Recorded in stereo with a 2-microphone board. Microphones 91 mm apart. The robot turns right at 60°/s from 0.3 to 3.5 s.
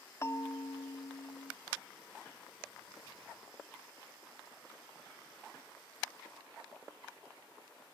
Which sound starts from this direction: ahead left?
A bell, at 0.2 s.